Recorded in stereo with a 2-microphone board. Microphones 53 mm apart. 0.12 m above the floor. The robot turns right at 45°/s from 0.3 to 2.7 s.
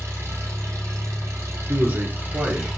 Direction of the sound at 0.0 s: 120° right.